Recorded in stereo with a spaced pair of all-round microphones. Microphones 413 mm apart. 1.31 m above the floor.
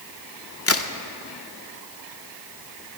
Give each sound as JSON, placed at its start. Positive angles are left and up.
{"t": 0.7, "sound": "a crack", "side_deg": 35, "distance_m": 0.6}